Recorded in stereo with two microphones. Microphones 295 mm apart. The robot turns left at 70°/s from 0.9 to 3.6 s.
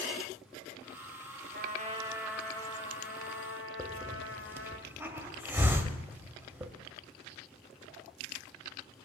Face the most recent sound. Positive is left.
turn(degrees=-10)  # may be behind; listen again after turning